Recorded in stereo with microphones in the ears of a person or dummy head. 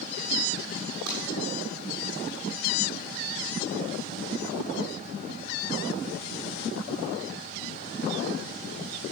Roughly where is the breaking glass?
Right.